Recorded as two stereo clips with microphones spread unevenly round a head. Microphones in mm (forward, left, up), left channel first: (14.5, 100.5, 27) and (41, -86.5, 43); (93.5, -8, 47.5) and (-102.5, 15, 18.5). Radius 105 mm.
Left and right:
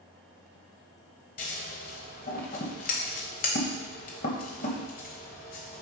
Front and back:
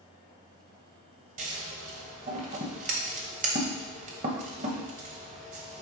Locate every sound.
1.4 s scissors: 130° left, 1.3 m